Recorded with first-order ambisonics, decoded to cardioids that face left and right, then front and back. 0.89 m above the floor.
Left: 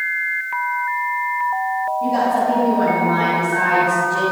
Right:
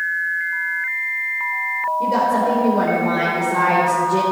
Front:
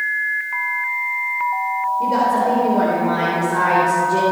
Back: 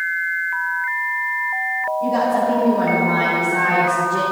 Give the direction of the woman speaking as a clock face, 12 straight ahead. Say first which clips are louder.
Even, front 1 dB; 2 o'clock.